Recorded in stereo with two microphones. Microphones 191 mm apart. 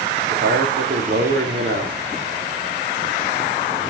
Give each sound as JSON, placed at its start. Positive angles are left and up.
{"t": 0.3, "sound": "a man speaking", "side_deg": -75, "distance_m": 3.0}